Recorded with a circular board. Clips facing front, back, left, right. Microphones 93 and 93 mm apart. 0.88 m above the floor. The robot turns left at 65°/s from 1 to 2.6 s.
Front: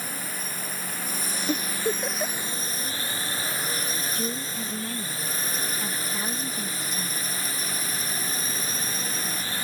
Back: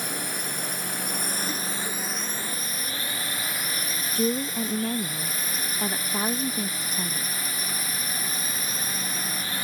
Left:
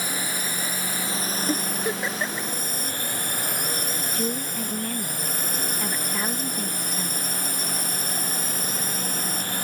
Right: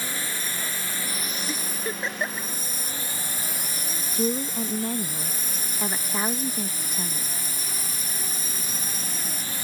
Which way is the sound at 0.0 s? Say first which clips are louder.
Back 3 dB, left 3 dB; 165° left.